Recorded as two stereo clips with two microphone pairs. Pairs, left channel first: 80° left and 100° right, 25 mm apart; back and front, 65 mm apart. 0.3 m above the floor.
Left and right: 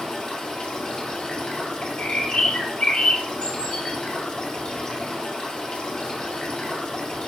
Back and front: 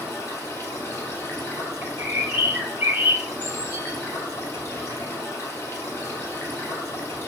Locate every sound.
0.0 s running water: 135° left, 1.1 m
1.8 s a bird: 55° left, 0.9 m